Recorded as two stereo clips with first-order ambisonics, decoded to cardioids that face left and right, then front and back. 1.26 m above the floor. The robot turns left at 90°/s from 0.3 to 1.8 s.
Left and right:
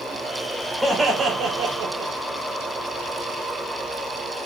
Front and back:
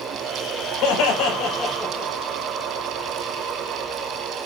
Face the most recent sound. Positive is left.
turn(degrees=-85)